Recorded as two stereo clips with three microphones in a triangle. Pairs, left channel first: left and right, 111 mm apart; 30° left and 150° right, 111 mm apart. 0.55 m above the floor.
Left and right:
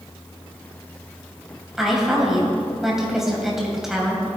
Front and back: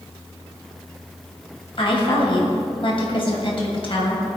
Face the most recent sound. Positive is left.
turn(degrees=-5)